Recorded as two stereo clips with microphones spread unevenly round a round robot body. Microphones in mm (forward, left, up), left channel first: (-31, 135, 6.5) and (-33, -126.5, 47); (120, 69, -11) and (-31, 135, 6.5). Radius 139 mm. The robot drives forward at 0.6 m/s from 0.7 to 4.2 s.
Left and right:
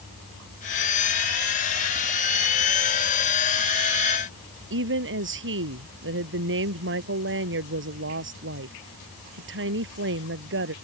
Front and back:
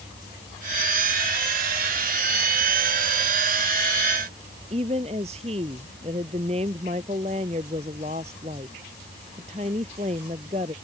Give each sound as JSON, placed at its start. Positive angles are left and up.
{"t": 4.7, "sound": "a woman speaking", "azimuth_deg": -135}